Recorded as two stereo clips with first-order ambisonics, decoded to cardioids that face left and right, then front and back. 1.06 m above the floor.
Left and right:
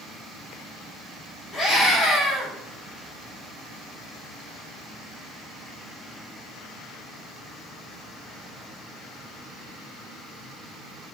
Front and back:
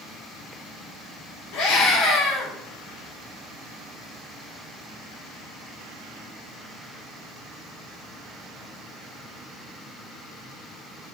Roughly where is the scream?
Ahead.